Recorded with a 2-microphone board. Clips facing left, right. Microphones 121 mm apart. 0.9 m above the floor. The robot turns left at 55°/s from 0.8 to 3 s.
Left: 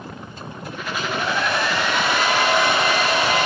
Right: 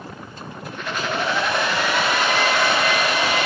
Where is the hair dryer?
110° right, 1.1 m; by 3.5 s 130° left, 1.1 m.